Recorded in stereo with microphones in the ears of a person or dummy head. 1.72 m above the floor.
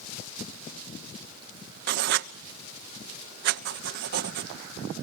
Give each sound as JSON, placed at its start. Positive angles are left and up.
{"t": 1.9, "sound": "writing", "side_deg": -60, "distance_m": 1.0}